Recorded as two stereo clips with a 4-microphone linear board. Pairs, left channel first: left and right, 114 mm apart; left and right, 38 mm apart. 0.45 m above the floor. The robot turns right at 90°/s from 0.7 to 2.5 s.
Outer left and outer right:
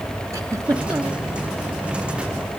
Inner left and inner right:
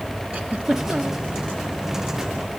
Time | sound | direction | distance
0.3 | a giggle | 115° right | 1.5 m